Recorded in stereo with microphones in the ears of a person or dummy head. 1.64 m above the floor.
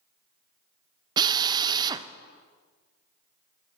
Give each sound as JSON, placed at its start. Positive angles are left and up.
{"t": 1.2, "sound": "a drill", "side_deg": -20, "distance_m": 0.6}